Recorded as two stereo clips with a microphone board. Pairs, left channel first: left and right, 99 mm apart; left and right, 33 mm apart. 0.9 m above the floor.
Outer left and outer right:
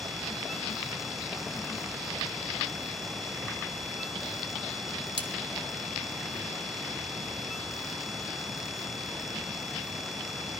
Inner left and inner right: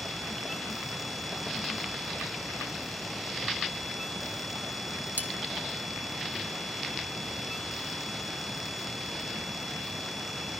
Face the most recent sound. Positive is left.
turn(degrees=-65)  # may be behind; listen again after turning